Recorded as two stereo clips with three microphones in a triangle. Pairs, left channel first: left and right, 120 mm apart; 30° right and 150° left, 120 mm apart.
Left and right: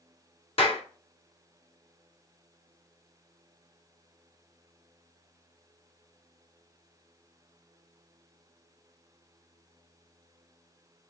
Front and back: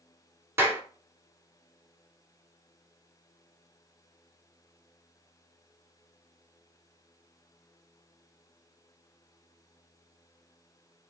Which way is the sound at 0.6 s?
85° left.